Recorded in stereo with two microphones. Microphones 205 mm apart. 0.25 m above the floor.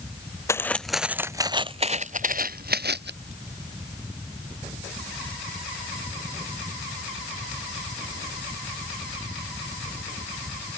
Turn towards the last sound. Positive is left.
turn(degrees=-55)  # may be behind; listen again after turning